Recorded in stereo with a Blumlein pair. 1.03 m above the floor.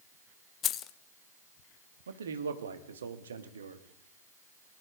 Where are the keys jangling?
30° left, 0.7 m.